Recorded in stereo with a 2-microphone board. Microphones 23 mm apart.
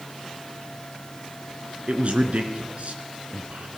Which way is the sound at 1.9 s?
60° right (ahead or behind).